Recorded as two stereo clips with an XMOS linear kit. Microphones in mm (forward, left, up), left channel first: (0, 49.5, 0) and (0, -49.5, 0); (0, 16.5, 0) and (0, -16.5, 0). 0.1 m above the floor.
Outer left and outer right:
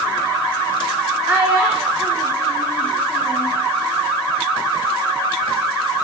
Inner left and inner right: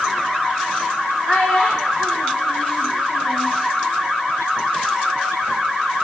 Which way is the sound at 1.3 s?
15° right (ahead or behind).